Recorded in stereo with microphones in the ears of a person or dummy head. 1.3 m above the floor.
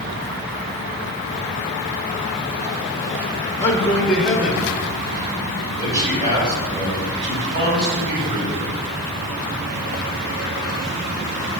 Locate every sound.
3.6 s a man speaking: 15° left (ahead or behind), 1.2 m; by 8.8 s 35° right (ahead or behind), 4.5 m